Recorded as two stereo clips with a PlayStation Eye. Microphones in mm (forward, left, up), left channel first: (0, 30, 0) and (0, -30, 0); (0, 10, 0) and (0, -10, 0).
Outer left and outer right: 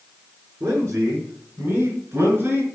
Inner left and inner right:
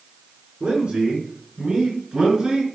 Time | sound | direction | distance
0.6 | a man speaking | 55° right (ahead or behind) | 3.5 m